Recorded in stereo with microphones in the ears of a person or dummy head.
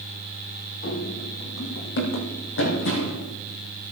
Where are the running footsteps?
40° left (ahead or behind), 2.5 m; by 3.2 s 60° left (ahead or behind), 4.5 m.